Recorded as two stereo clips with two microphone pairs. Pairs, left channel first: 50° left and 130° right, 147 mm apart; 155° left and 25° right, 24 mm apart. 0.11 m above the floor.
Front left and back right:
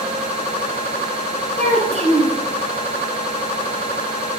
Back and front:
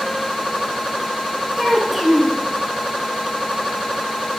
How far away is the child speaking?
About 1.6 m.